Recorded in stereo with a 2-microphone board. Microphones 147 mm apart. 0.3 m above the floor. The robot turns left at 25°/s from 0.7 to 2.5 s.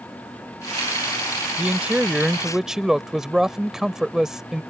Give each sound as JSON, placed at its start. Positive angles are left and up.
{"t": 1.6, "sound": "a man speaking", "side_deg": -10}